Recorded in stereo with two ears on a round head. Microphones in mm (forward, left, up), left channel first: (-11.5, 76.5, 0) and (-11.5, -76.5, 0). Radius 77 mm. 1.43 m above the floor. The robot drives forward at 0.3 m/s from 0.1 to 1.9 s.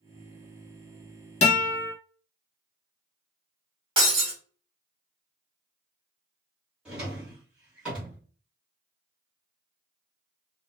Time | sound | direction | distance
1.4 | a guitar | 40° left (ahead or behind) | 0.8 m
4.0 | breaking glass | 30° right (ahead or behind) | 1.5 m
6.8 | a drawer | 5° right (ahead or behind) | 1.5 m